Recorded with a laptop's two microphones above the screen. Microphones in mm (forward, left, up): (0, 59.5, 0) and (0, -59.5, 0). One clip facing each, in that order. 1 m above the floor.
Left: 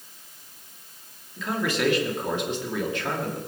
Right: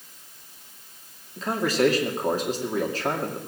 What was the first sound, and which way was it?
A man speaking, 35° right (ahead or behind).